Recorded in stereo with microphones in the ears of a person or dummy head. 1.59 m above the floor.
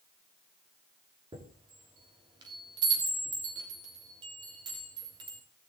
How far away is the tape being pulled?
I don't hear tape being pulled.